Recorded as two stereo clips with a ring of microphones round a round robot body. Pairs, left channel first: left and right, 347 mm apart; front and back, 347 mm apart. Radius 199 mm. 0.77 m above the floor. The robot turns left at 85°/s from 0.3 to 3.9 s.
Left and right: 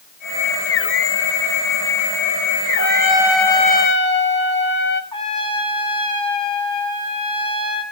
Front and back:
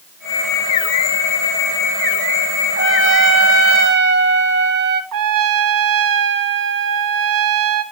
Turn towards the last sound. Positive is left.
turn(degrees=165)